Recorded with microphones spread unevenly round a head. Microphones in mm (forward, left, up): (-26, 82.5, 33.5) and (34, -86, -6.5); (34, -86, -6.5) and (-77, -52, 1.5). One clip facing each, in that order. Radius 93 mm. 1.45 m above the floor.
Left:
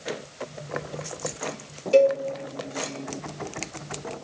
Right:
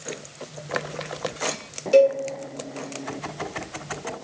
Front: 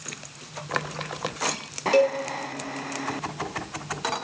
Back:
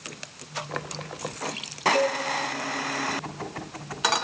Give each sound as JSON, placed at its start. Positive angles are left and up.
{"t": 1.9, "sound": "a cowbell", "azimuth_deg": 10, "distance_m": 1.8}